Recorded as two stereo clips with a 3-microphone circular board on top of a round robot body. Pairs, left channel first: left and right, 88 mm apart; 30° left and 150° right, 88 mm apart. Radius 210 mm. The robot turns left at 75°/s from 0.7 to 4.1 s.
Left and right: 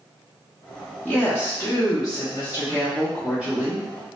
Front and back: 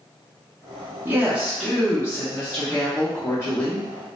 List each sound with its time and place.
1.1 s a woman speaking: 160° left, 1.1 m; by 3.9 s 50° right, 1.1 m